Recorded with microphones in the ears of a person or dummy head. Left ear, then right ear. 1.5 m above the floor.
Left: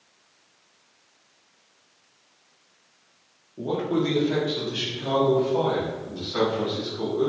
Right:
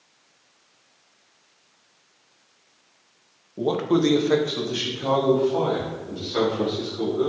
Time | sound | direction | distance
3.6 | a man speaking | 85° right | 0.5 m